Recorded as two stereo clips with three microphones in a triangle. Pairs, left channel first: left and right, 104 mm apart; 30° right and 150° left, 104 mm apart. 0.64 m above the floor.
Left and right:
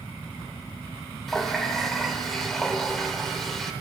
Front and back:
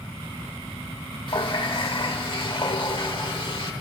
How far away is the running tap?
About 1.2 m.